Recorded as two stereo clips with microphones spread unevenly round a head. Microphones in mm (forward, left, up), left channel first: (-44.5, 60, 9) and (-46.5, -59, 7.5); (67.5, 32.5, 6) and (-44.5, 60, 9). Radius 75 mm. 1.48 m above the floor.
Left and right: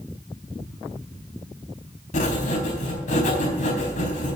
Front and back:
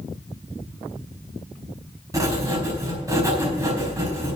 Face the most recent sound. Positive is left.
turn(degrees=105)